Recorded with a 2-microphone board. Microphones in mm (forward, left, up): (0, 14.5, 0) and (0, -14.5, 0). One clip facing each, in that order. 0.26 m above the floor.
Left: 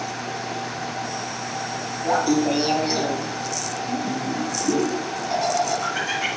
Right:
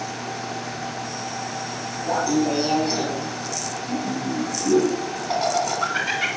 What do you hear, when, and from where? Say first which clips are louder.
2.0 s laughter: left 1 dB; 25° left (ahead or behind), 1.6 m; by 6.3 s 40° right (ahead or behind), 2.5 m